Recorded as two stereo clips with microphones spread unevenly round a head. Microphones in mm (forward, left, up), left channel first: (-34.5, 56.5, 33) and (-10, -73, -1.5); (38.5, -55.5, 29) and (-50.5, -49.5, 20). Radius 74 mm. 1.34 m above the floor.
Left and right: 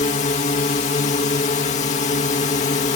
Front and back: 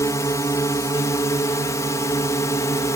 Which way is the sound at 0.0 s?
60° left.